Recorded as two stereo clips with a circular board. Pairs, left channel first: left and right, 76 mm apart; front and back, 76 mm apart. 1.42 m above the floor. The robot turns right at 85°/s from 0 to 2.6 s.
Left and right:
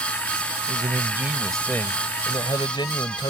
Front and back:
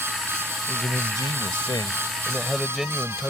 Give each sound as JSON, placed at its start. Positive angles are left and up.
{"t": 0.7, "sound": "a man speaking", "azimuth_deg": -70}